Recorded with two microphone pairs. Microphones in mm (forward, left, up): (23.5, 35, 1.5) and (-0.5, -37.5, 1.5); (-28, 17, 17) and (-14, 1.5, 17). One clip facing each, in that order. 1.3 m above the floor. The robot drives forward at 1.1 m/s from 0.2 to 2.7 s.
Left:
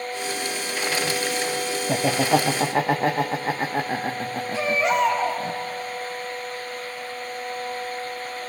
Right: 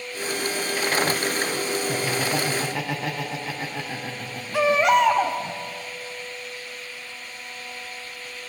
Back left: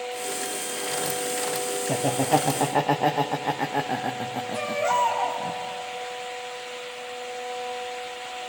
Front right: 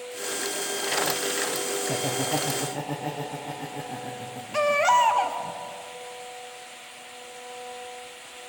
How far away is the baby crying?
About 2 m.